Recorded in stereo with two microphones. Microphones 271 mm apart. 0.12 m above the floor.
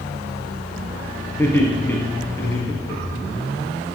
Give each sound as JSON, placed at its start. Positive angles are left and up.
{"t": 1.4, "sound": "laughter", "side_deg": 10, "distance_m": 2.5}